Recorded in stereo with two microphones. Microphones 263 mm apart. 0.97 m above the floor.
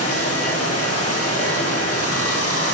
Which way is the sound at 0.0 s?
60° left (ahead or behind).